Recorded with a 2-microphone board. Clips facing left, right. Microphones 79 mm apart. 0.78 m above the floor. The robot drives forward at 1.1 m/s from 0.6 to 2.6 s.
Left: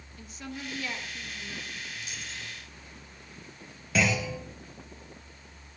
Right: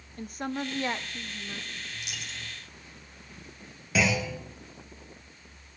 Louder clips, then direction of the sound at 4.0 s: Right 1 dB; centre (ahead or behind).